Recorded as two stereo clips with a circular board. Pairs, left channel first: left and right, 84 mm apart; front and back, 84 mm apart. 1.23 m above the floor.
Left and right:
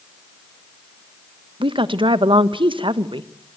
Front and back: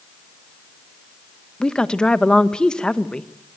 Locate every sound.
1.6 s a woman speaking: 80° right, 1.1 m